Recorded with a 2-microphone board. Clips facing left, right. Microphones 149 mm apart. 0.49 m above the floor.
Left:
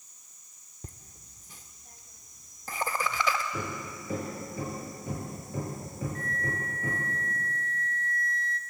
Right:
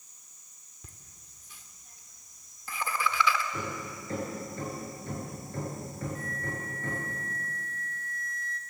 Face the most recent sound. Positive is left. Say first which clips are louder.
# left 2 dB
turn(degrees=60)  # may be behind; listen again after turning